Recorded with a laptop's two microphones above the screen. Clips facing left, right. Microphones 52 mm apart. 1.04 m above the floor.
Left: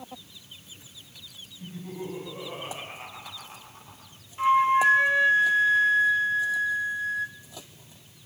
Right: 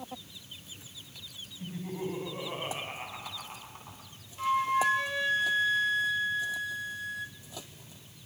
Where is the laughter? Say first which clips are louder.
Right 1 dB; 25° right (ahead or behind), 7 m.